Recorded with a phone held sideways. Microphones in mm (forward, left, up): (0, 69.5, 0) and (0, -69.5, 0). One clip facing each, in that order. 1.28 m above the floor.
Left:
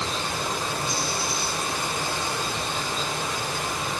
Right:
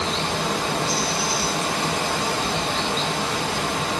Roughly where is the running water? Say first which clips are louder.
Right 5 dB; right.